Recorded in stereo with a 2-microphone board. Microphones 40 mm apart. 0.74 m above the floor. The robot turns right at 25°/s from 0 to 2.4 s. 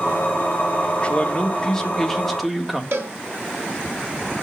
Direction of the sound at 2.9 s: 70° right (ahead or behind).